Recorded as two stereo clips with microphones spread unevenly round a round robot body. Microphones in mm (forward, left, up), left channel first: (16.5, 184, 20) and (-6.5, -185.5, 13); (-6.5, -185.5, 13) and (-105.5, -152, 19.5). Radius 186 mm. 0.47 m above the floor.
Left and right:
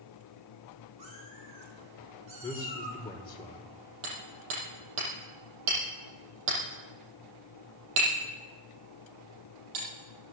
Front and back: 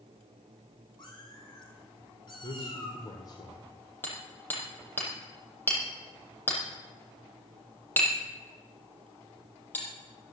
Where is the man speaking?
10° left, 1.8 m.